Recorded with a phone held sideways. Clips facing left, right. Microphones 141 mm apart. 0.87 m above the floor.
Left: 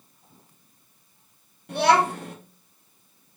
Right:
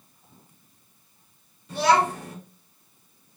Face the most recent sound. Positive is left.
turn(degrees=65)  # may be behind; listen again after turning